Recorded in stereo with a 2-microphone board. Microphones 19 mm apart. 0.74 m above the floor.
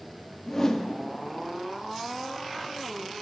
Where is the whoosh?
20° left (ahead or behind), 0.8 m.